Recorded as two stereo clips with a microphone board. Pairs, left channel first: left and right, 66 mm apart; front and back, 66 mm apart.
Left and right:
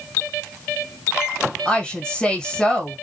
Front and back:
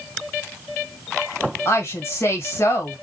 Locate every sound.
1.6 s a woman speaking: 20° left, 1.6 m